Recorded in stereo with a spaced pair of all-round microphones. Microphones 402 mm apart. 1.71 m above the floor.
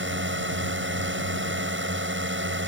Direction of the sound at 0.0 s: 30° right (ahead or behind).